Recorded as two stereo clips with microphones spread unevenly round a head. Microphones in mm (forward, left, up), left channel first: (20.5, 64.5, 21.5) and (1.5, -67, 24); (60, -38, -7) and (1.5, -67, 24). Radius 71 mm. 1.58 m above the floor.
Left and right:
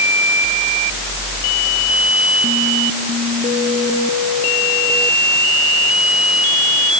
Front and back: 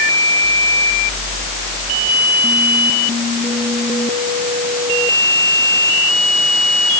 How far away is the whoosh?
No whoosh in this recording.